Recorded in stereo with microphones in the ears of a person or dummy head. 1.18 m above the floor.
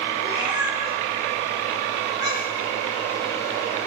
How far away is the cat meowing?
About 7 m.